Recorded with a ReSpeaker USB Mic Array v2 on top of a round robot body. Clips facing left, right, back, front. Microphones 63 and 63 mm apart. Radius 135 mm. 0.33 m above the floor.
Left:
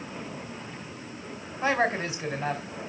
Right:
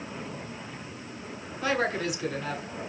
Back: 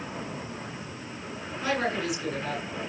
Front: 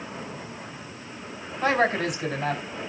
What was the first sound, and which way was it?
A woman speaking, 35° left.